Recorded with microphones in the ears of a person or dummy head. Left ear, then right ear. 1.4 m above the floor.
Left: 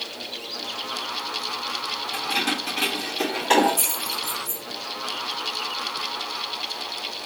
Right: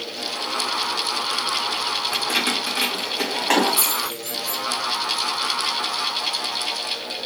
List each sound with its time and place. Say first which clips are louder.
2.1 s keys jangling: right 1 dB; 55° right (ahead or behind), 1.3 m; by 4.6 s 25° right (ahead or behind), 2.5 m